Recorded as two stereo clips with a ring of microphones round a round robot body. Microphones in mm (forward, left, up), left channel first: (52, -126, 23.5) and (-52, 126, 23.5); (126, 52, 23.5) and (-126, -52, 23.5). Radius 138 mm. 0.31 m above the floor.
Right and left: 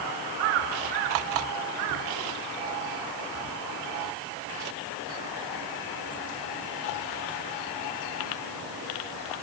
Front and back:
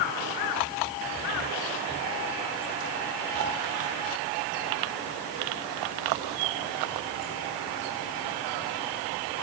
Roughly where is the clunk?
I don't hear a clunk.